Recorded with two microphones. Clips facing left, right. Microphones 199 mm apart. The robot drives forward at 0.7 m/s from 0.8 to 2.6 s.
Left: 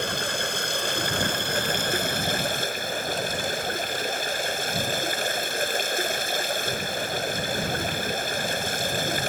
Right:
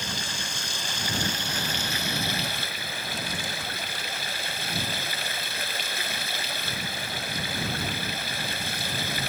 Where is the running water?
60° left (ahead or behind); by 9.3 s 50° left (ahead or behind).